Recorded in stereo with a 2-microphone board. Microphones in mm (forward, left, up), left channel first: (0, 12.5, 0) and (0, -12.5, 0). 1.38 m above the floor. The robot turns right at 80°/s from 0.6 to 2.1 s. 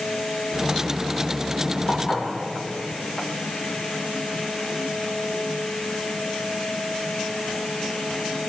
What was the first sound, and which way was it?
Dishes clattering, 60° left (ahead or behind).